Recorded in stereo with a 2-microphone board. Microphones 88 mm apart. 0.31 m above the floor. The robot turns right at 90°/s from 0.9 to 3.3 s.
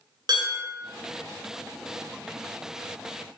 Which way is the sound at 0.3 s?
60° right (ahead or behind).